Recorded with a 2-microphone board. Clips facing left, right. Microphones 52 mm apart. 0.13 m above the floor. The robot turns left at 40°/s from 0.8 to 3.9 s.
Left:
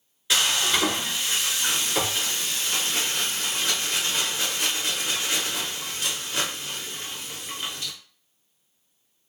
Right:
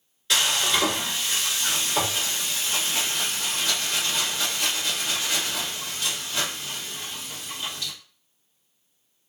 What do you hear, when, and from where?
0.3 s frying: 170° left, 1.4 m; by 7.9 s 50° left, 1.4 m